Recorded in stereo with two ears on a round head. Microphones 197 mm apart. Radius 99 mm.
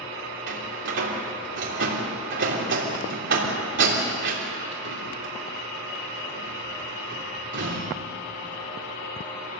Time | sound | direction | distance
0.5 | a door slam | 55° right (ahead or behind) | 3.5 m